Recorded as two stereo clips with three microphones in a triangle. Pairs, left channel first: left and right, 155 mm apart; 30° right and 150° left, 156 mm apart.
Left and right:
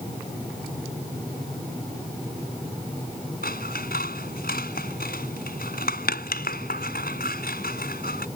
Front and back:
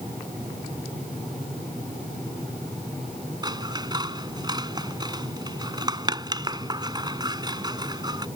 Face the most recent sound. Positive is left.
turn(degrees=85)